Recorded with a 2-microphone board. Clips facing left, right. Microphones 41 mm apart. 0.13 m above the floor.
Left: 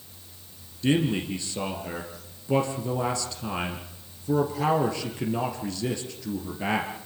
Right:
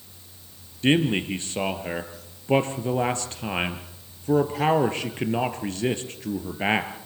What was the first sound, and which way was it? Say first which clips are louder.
A man speaking: right 3 dB; 45° right (ahead or behind).